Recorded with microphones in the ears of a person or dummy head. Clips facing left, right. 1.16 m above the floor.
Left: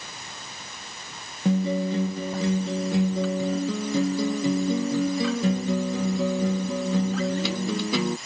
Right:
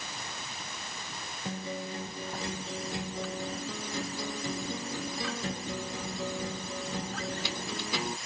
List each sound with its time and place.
1.4 s a guitar: 70° left (ahead or behind)